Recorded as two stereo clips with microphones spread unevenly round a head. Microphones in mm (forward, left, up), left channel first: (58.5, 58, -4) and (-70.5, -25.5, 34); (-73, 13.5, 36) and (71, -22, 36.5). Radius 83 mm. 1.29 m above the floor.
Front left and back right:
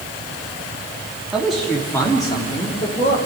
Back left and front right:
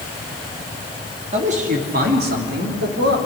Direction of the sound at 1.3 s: 60° right.